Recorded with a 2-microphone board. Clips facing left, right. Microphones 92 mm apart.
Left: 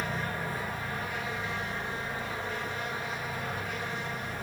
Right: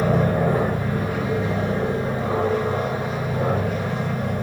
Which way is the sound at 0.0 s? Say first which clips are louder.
Right 14 dB; 65° right (ahead or behind).